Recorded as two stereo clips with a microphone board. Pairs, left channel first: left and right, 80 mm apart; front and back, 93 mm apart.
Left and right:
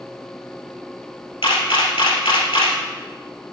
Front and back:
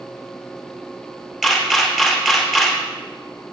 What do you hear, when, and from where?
1.4 s a camera shutter: 95° left, 2.5 m